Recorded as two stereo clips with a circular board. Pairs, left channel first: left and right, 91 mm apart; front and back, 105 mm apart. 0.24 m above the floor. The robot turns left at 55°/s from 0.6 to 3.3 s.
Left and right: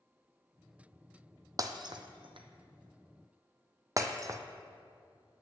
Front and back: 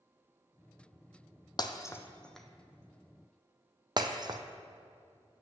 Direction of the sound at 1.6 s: 45° right.